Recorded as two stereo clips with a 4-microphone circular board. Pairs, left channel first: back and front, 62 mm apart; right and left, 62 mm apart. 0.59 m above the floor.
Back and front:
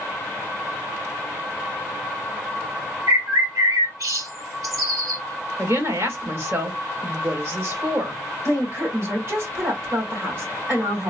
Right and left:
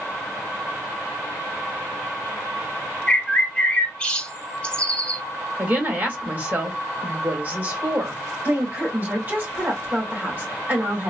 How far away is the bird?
About 1.8 m.